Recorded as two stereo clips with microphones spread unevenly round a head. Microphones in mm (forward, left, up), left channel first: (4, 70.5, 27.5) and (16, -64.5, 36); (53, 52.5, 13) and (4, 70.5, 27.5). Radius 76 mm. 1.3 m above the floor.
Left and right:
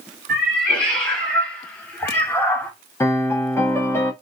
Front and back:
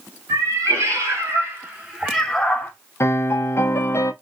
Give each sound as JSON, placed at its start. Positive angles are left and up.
{"t": 0.3, "sound": "a cat meowing", "azimuth_deg": -175, "distance_m": 2.0}
{"t": 3.0, "sound": "a piano", "azimuth_deg": 20, "distance_m": 1.0}